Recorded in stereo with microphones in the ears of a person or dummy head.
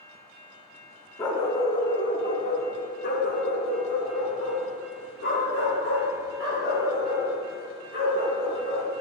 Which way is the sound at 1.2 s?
20° left (ahead or behind).